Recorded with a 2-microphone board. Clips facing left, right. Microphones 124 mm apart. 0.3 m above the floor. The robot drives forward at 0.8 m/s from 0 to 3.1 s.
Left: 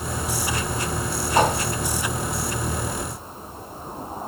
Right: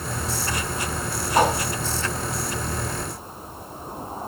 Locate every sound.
1.4 s a whoosh: 5° right (ahead or behind), 2.5 m